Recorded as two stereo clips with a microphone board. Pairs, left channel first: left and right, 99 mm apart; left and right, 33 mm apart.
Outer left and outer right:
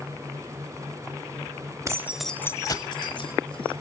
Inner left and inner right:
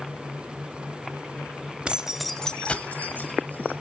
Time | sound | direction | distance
1.9 | keys jangling | 35° right (ahead or behind) | 1.0 m